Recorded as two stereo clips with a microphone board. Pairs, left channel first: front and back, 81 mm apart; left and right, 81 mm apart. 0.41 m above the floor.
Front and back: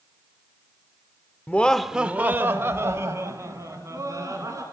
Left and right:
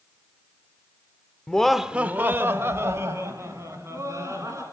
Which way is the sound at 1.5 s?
30° left.